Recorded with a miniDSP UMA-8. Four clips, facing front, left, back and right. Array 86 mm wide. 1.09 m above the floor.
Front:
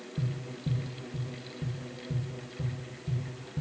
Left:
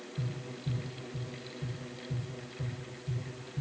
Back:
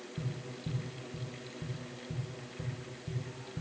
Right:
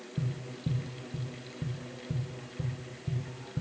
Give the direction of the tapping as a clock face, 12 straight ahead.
3 o'clock.